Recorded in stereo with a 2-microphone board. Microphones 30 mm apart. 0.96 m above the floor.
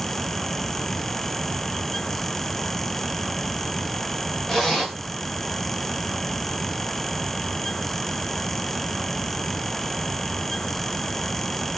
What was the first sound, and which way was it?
A zipper, 10° left (ahead or behind).